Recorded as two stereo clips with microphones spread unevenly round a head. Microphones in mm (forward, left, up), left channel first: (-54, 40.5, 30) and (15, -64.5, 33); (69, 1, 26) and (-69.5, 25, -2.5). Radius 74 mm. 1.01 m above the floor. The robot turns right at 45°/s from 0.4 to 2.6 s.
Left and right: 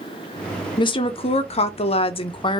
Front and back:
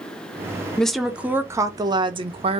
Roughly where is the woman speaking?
Left.